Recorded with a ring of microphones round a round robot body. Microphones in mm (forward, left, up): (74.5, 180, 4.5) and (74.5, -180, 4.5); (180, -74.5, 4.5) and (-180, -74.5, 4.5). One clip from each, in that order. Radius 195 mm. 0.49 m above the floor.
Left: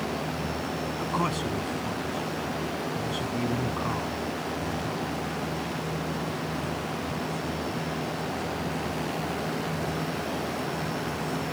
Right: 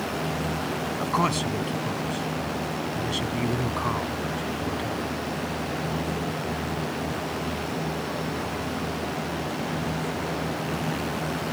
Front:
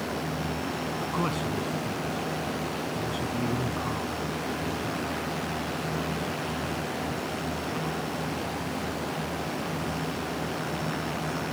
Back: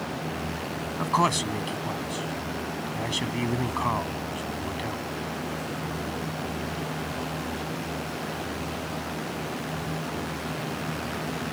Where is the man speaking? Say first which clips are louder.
Right 4 dB, back 9 dB; 170° right.